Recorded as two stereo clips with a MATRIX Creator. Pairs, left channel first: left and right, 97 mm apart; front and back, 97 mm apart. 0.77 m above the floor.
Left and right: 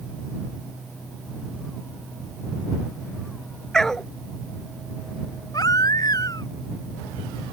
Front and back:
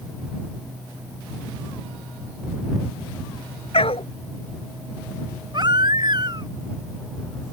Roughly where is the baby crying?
Behind left.